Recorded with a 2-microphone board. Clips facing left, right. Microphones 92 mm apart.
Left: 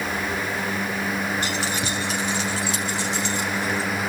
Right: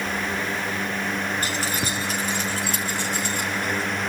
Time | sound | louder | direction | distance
1.4 | keys jangling | left 1 dB | 40° right (ahead or behind) | 4.5 m